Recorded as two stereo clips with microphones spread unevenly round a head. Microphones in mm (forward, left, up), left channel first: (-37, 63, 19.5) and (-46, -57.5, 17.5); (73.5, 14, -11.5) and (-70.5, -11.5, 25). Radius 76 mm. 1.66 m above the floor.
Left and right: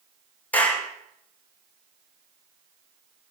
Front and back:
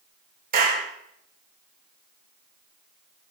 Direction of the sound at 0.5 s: 160° left.